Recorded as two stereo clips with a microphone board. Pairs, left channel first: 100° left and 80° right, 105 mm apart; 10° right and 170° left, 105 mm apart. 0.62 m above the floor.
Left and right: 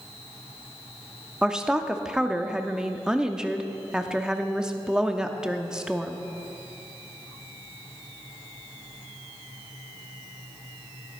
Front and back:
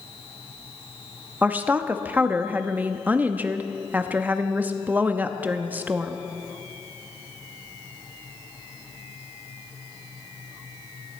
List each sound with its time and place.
1.4 s a woman speaking: 145° right, 0.6 m